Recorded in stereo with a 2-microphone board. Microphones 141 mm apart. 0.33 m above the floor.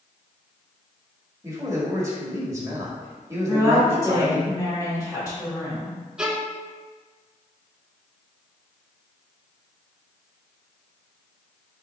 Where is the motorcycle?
I don't hear a motorcycle.